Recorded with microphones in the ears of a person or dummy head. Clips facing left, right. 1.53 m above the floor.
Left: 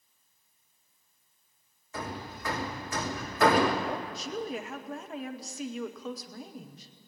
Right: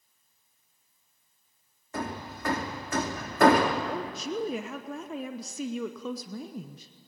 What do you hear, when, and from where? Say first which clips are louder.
1.9 s hammering: right 3 dB; 50° right (ahead or behind), 2.5 m
3.9 s a woman speaking: right 2 dB; 80° right, 1.1 m